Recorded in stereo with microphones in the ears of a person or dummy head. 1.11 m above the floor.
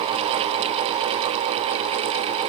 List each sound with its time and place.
Only background noise.